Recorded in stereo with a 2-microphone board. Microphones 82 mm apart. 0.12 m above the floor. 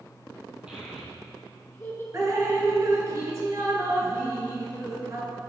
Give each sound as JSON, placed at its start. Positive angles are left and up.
{"t": 0.7, "sound": "a child speaking", "side_deg": -15, "distance_m": 2.0}
{"t": 2.1, "sound": "dripping", "side_deg": -40, "distance_m": 1.0}